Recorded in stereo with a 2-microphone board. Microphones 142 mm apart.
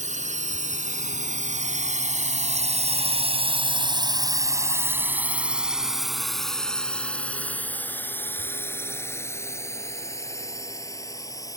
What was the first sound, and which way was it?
A drone, 60° right (ahead or behind).